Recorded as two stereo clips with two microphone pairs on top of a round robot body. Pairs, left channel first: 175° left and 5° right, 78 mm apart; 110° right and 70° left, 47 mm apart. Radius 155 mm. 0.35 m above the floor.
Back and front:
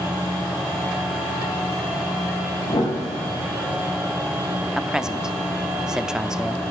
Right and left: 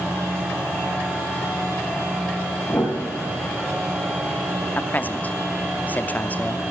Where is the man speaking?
85° right, 0.9 m.